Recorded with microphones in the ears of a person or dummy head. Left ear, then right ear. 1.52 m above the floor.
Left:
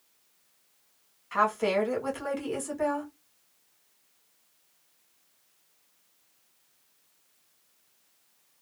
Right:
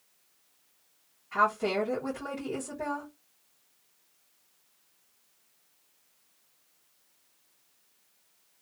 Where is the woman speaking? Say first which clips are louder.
Left 1 dB; 45° left (ahead or behind), 1.9 m.